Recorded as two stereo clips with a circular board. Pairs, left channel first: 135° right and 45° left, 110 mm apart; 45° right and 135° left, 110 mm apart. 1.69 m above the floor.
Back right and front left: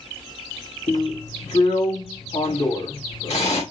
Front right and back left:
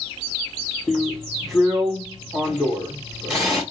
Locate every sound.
0.9 s a drill: 135° right, 2.5 m